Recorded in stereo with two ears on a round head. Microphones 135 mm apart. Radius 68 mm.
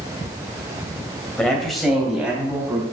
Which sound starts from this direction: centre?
A man speaking, at 1.4 s.